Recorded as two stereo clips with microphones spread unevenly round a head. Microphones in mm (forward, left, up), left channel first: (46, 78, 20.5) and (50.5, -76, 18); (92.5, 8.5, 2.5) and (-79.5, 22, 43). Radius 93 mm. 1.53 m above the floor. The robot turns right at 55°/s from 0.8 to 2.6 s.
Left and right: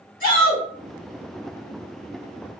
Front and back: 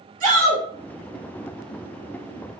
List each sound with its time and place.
0.2 s a shout: 135° left, 2 m